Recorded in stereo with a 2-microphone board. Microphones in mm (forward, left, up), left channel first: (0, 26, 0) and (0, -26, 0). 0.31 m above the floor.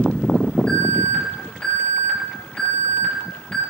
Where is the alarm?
20° left (ahead or behind), 7 m.